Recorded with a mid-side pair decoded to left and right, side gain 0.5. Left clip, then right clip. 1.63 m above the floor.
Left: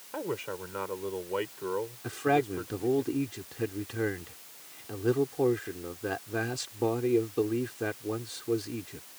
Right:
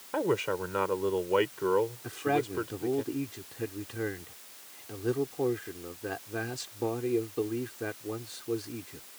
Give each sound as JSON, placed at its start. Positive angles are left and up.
{"t": 0.1, "sound": "a man speaking", "azimuth_deg": -40}
{"t": 2.0, "sound": "a man speaking", "azimuth_deg": 20}